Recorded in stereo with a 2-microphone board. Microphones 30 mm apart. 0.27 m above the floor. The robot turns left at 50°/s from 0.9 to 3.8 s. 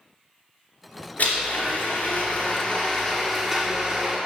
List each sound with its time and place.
1.2 s a blender: 110° left, 2.5 m; by 4.2 s 20° right, 2.5 m